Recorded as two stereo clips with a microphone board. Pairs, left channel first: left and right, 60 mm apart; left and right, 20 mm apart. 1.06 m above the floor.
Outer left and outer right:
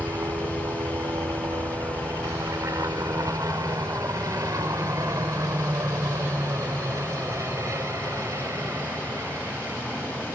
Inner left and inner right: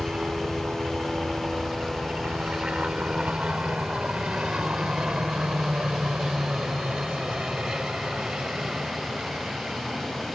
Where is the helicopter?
65° right (ahead or behind); by 10.3 s 50° right (ahead or behind).